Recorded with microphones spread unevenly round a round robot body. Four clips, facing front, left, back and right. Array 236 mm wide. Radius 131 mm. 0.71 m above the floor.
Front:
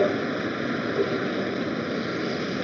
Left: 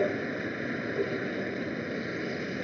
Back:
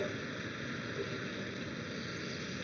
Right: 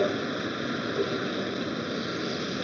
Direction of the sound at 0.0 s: 10° right.